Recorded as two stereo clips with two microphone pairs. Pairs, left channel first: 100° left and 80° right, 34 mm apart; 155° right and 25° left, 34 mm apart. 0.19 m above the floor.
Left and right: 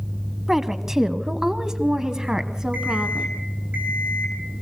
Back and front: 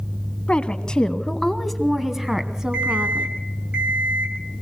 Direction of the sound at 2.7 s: 30° right.